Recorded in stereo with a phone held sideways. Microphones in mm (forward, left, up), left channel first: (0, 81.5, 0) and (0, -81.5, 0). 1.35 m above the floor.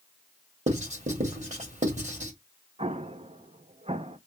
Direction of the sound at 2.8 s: 40° right (ahead or behind).